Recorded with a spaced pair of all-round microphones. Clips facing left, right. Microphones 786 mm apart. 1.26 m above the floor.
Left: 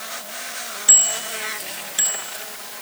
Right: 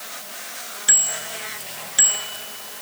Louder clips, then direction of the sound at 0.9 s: Left 2 dB; 30° right (ahead or behind).